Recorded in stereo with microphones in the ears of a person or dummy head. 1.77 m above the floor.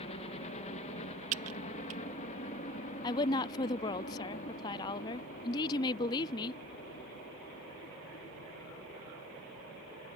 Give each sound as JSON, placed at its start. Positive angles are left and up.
{"t": 0.0, "sound": "a helicopter", "side_deg": 35}
{"t": 1.3, "sound": "typing on a keyboard", "side_deg": -45}
{"t": 3.0, "sound": "a woman speaking", "side_deg": 25}